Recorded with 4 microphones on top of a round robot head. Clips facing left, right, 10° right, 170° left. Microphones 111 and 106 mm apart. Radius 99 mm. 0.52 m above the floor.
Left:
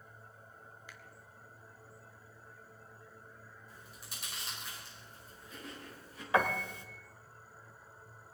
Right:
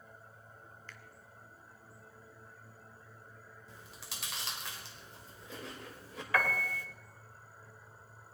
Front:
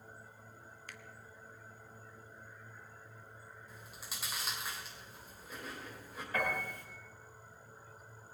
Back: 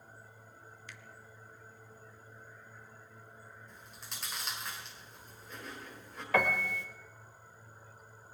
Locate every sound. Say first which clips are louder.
0.9 s a finger snap: right 1 dB, front 2 dB; 15° left, 1.2 m
3.7 s chewing: right 4 dB, front 1 dB; 95° right, 2.5 m
6.3 s a piano: left 2 dB, back 6 dB; 160° left, 1.8 m